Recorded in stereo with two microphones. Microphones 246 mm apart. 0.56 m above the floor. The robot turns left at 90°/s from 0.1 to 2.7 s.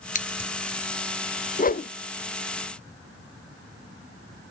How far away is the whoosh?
About 0.5 m.